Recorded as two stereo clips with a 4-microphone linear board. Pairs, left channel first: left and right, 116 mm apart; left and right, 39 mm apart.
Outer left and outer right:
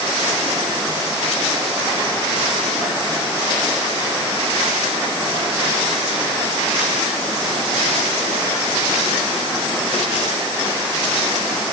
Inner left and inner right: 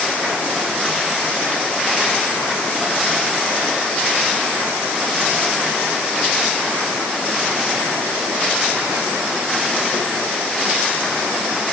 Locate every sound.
Only background noise.